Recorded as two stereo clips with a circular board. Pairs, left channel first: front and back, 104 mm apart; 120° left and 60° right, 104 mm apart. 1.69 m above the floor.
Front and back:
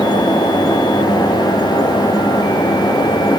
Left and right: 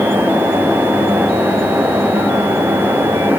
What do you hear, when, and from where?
Only background noise.